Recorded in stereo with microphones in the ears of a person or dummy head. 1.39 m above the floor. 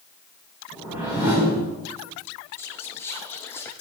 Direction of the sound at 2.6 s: 10° left (ahead or behind).